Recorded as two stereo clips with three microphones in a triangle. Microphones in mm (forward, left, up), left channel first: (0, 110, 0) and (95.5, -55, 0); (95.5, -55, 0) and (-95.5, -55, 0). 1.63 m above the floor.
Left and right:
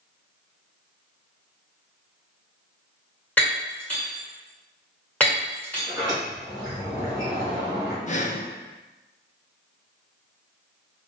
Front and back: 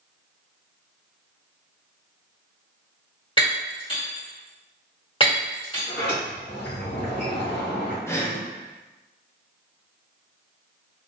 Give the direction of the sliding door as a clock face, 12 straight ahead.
12 o'clock.